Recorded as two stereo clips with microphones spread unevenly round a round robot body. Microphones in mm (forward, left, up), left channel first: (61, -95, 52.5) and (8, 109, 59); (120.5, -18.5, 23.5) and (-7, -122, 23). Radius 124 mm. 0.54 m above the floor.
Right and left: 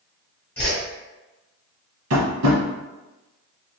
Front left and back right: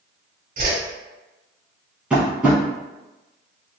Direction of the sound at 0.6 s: 155° right.